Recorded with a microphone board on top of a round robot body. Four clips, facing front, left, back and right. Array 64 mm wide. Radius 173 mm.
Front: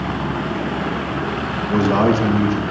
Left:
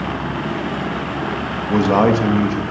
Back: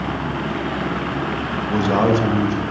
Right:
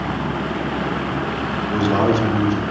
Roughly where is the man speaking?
Left.